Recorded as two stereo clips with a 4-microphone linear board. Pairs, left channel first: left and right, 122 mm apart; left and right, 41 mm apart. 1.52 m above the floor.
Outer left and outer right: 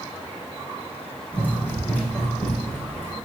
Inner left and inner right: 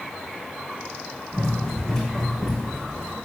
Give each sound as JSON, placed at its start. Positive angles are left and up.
{"t": 1.3, "sound": "running footsteps", "side_deg": 15, "distance_m": 4.0}